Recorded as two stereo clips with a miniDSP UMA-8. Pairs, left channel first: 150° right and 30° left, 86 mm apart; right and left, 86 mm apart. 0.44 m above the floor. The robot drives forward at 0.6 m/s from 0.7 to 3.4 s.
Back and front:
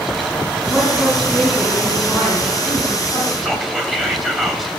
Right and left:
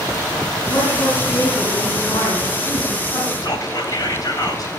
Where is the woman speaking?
60° right, 5 m; by 3.3 s 80° right, 4.5 m.